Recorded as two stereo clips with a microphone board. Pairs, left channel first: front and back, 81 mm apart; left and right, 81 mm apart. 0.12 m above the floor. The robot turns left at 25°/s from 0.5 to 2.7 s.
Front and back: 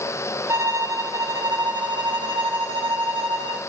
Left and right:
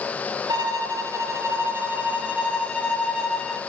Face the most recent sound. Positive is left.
turn(degrees=180)